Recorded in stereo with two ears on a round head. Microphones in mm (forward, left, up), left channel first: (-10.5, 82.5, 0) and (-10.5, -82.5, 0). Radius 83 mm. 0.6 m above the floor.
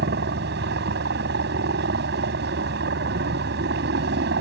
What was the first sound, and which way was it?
A helicopter, 65° right (ahead or behind).